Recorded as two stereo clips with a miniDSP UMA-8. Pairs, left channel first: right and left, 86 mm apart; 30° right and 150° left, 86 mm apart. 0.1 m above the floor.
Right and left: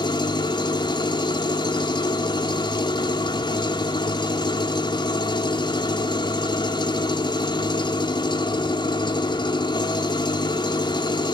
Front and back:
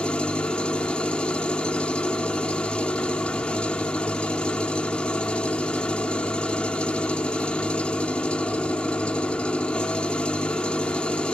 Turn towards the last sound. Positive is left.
turn(degrees=-110)